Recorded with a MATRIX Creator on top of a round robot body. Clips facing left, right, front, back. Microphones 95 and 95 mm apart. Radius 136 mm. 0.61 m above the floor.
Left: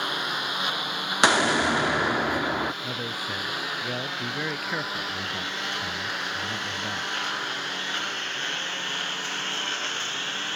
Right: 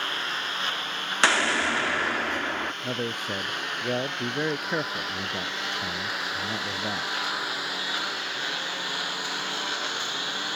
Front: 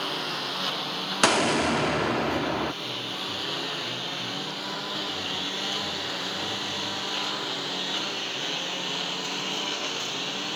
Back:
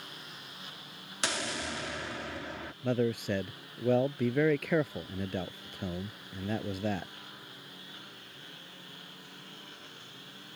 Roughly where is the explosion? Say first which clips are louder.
Left 3 dB, front 14 dB; ahead.